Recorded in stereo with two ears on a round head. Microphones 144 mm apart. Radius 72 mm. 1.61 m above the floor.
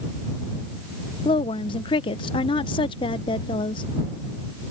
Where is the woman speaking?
35° left (ahead or behind).